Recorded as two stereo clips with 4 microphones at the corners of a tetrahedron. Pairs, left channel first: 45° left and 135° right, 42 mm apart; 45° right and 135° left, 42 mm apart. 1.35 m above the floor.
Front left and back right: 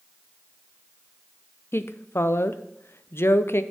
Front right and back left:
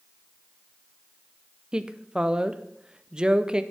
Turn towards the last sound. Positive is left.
turn(degrees=65)